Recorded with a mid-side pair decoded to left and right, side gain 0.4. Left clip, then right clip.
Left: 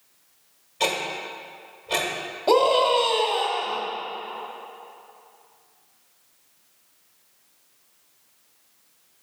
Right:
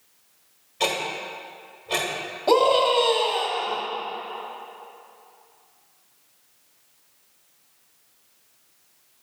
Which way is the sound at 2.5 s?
5° left.